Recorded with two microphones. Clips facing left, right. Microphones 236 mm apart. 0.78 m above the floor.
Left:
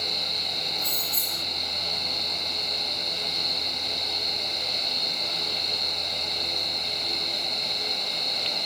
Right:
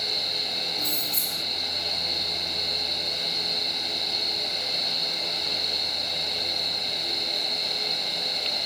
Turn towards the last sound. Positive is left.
turn(degrees=-30)  # may be behind; listen again after turning